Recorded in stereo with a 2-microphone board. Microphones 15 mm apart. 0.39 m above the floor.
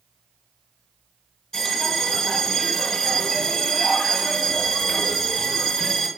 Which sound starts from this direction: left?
A bell, at 1.5 s.